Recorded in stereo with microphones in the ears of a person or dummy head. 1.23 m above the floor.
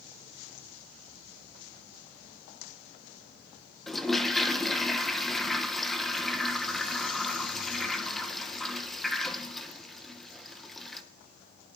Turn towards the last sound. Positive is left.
turn(degrees=0)  # may be behind; listen again after turning